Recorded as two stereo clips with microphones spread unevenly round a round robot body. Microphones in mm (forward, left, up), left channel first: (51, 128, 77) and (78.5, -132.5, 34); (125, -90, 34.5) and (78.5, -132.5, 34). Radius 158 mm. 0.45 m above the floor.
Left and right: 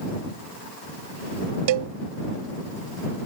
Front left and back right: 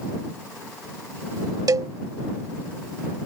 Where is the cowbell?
105° right.